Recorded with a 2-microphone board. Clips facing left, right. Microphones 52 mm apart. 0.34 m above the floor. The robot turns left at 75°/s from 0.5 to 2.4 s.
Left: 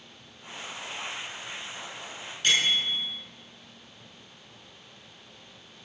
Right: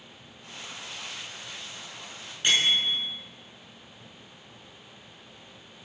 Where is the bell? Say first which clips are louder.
Right 1 dB; 20° right (ahead or behind), 5 m.